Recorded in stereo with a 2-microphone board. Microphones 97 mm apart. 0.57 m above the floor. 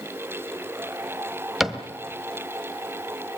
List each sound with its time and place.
1.6 s a cupboard door: 5° right (ahead or behind), 1.5 m